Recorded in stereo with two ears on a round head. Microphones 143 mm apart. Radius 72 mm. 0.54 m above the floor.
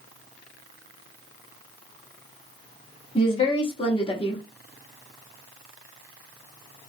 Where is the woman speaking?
35° left (ahead or behind), 0.8 m.